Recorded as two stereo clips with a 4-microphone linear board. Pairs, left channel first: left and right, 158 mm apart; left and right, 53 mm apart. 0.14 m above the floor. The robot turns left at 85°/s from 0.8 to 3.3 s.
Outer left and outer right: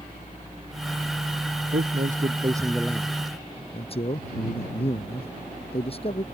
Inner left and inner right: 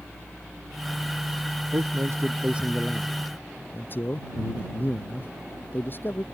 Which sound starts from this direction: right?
A man speaking, at 1.7 s.